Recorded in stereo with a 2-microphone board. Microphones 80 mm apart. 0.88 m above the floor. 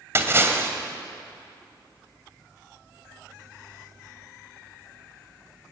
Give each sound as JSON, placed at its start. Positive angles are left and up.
{"t": 0.1, "sound": "a splash", "side_deg": -30, "distance_m": 2.0}